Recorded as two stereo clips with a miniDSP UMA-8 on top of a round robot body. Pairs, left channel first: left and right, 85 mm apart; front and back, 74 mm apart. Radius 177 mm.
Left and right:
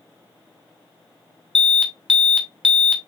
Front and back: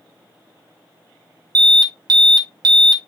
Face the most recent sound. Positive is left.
turn(degrees=175)